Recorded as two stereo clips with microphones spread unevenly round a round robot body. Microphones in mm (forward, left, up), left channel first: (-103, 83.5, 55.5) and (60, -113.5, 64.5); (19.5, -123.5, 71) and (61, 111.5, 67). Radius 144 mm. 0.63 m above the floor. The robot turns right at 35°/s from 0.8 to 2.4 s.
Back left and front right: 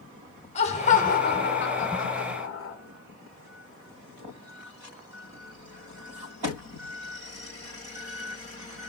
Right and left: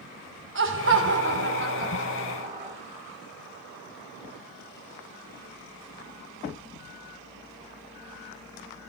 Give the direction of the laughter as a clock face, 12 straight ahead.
10 o'clock.